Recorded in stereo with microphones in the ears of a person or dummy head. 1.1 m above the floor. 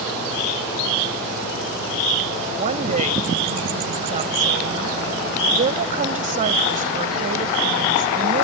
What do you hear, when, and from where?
2.5 s a woman speaking: 40° right (ahead or behind)